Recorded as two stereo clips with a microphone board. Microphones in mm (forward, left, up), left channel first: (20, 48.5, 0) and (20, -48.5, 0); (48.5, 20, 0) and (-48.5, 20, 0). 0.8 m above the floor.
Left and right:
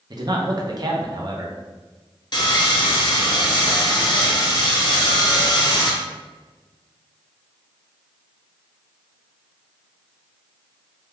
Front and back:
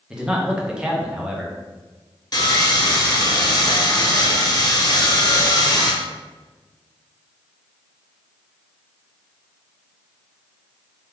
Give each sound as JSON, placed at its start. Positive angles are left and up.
{"t": 0.1, "sound": "a man speaking", "azimuth_deg": -105, "distance_m": 0.5}
{"t": 2.3, "sound": "sawing", "azimuth_deg": 45, "distance_m": 0.7}